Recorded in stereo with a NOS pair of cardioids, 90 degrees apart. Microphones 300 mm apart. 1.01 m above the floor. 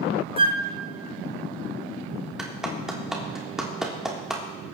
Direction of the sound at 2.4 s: Straight ahead.